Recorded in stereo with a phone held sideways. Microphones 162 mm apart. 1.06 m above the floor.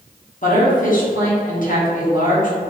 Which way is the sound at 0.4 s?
55° left (ahead or behind).